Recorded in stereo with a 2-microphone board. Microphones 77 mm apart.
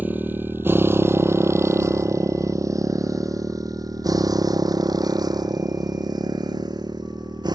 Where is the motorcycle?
25° right (ahead or behind); by 7.5 s 65° right (ahead or behind).